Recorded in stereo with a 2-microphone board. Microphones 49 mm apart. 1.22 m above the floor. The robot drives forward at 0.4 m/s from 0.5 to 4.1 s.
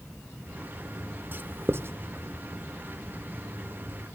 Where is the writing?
35° right (ahead or behind), 0.8 m; by 1.9 s 50° right (ahead or behind), 0.6 m.